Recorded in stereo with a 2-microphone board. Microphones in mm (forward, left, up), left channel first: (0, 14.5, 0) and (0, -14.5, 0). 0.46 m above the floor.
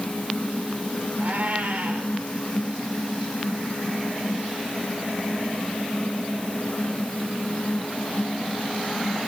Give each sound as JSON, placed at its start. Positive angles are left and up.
{"t": 1.2, "sound": "a cat meowing", "side_deg": -60, "distance_m": 4.0}